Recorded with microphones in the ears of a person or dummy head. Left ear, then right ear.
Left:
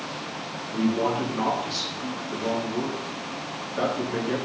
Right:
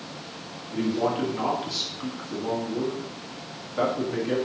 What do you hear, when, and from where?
0.7 s a man speaking: 10° right (ahead or behind), 2.5 m